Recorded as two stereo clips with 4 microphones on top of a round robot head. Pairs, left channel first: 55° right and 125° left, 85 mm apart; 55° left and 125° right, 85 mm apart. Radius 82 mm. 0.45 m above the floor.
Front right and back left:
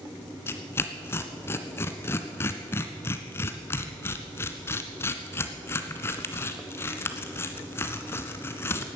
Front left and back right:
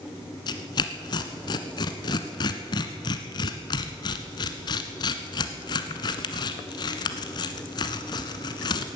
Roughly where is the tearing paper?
Ahead.